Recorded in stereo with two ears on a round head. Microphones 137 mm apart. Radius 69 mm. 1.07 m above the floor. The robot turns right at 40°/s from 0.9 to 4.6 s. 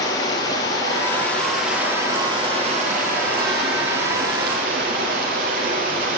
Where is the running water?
155° left, 6 m; by 6.2 s 60° right, 6 m.